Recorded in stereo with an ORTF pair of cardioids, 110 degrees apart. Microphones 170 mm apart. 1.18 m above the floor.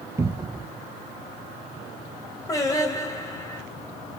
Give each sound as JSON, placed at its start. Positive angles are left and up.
{"t": 0.2, "sound": "a cupboard door", "azimuth_deg": -15, "distance_m": 0.7}
{"t": 2.5, "sound": "singing", "azimuth_deg": 20, "distance_m": 2.5}